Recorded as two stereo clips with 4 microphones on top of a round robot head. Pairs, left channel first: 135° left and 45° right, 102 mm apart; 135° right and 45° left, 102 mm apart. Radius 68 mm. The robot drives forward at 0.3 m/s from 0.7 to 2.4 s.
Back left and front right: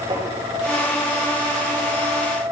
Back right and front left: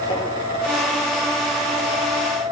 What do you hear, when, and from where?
0.1 s tapping: 95° right, 4 m